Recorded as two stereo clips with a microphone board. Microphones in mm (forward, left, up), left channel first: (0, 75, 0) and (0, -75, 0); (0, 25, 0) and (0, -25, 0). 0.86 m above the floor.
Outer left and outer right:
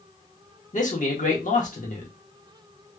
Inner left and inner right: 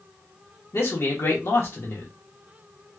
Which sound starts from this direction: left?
A man speaking, at 0.7 s.